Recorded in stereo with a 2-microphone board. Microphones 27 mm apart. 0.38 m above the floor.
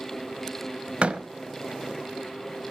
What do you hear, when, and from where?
1.0 s a door slam: 50° right (ahead or behind), 1.1 m